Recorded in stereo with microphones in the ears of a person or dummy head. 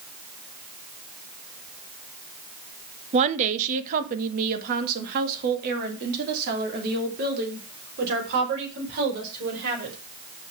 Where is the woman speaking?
35° right (ahead or behind), 0.9 m; by 9.9 s 60° right (ahead or behind), 5 m.